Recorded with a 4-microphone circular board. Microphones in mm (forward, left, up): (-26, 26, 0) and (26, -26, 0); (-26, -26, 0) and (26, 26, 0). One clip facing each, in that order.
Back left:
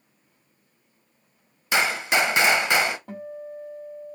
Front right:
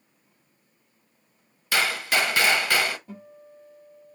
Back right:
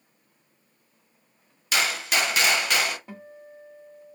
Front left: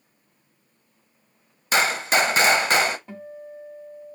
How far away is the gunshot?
About 0.8 m.